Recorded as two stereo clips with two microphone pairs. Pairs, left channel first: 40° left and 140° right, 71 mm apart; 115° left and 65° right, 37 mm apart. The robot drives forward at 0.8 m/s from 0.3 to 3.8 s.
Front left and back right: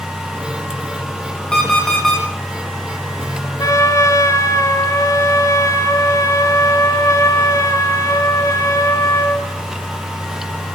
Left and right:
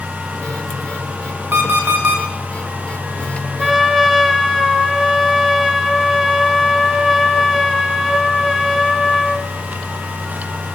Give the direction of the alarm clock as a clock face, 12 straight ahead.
1 o'clock.